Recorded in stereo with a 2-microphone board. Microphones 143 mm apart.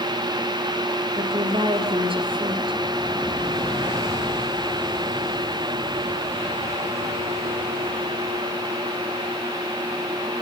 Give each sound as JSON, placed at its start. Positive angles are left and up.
{"t": 1.2, "sound": "a woman speaking", "side_deg": -40, "distance_m": 3.5}